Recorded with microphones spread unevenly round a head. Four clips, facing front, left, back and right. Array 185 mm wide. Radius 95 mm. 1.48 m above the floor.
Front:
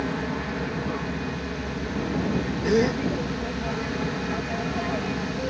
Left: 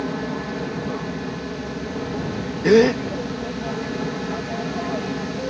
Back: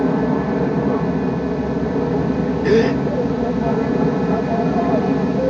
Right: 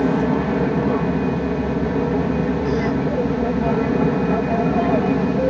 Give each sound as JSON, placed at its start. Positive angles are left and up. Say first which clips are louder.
{"t": 0.0, "sound": "an aircraft", "louder": "right 8 dB, back 11 dB", "azimuth_deg": -145}
{"t": 2.6, "sound": "a gasp", "louder": "left 6 dB, back 7 dB", "azimuth_deg": 125}